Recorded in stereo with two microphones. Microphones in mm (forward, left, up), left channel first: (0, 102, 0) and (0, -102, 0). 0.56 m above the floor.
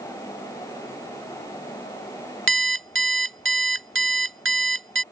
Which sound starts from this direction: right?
An alarm clock, at 2.5 s.